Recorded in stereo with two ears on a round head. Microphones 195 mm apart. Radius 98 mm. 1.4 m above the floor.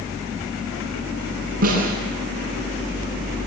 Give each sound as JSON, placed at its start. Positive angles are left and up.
{"t": 1.6, "sound": "a snare drum", "side_deg": -45, "distance_m": 9.0}